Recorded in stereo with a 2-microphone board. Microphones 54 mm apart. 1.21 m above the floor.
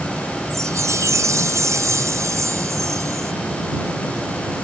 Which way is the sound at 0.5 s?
70° right (ahead or behind).